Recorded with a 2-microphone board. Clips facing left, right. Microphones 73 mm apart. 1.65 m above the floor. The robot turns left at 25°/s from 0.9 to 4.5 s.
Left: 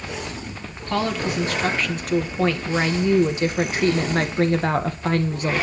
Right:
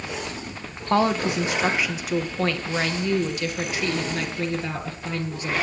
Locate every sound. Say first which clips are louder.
0.9 s a woman speaking: right 3 dB; 150° right, 1.5 m; by 5.6 s 120° left, 1.5 m